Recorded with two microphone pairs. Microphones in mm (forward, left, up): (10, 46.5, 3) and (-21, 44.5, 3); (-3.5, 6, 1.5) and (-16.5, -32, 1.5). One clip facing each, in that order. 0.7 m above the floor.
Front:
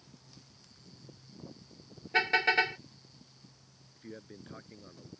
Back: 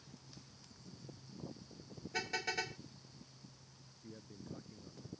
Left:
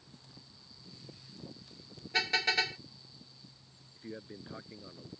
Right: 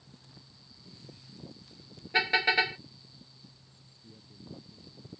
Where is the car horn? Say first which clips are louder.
Front 13 dB, right 5 dB; 40° right.